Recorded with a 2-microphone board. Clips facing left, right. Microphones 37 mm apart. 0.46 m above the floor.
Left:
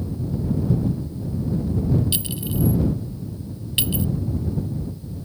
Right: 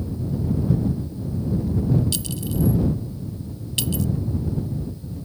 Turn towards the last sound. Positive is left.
turn(degrees=25)  # may be behind; listen again after turning